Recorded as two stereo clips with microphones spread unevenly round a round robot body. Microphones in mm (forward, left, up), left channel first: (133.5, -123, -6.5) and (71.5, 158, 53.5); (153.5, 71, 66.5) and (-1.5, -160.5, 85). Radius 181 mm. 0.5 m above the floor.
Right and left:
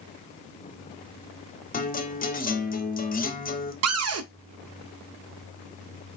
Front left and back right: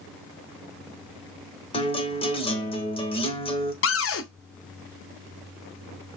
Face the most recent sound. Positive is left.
turn(degrees=65)